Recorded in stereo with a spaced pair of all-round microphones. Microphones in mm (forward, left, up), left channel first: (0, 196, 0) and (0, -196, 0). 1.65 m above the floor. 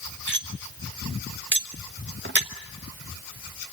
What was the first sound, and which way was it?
Cutlery clinking, 30° right (ahead or behind).